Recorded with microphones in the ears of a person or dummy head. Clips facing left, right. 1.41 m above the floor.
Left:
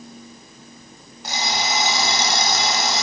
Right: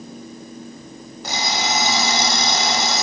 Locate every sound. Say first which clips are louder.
1.2 s an alarm clock: right 1 dB; 75° right (ahead or behind), 4.5 m